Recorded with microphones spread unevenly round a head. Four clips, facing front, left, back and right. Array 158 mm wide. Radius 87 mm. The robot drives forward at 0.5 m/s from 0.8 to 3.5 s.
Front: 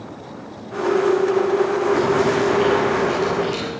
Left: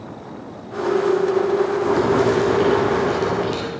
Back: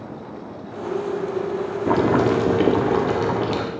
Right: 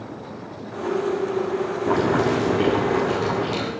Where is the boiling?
175° right, 1.4 m.